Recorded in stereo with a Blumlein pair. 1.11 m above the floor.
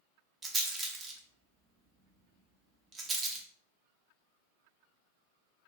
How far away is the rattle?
About 0.6 m.